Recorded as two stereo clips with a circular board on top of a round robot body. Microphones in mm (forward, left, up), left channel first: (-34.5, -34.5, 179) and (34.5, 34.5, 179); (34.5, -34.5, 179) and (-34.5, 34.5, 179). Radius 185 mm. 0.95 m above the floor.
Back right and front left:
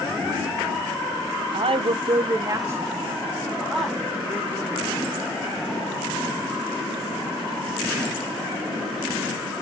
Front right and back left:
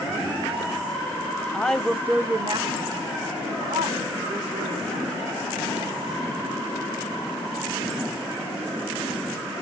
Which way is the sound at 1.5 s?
30° left.